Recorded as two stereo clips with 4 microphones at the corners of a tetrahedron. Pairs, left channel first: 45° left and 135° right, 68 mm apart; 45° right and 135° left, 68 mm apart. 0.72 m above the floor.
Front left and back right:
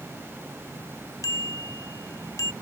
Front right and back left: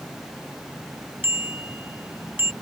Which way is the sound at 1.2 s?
80° left.